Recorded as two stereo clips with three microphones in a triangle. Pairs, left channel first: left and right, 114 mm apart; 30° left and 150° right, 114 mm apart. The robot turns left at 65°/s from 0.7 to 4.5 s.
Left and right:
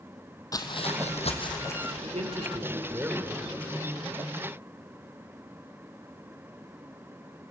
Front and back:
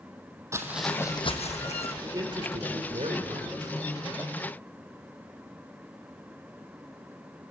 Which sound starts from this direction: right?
A man speaking, at 2.0 s.